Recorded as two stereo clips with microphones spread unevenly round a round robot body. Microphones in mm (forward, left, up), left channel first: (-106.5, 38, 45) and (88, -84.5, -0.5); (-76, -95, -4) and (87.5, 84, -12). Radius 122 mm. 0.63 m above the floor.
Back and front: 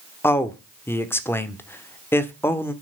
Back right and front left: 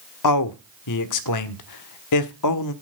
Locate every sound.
0.2 s a man speaking: 130° right, 1.4 m